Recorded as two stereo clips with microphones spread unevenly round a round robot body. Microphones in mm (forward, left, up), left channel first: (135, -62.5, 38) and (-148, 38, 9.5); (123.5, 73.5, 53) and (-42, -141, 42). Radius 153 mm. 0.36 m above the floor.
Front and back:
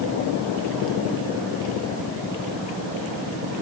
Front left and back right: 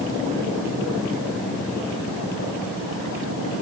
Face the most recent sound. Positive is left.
No sound to turn to.